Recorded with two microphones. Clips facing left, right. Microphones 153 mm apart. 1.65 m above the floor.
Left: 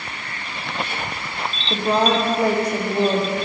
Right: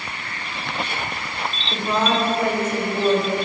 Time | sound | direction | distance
1.7 | a woman speaking | 35° left (ahead or behind) | 1.2 m